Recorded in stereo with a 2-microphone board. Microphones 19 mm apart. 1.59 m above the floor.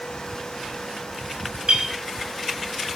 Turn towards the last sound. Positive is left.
turn(degrees=-50)  # may be behind; listen again after turning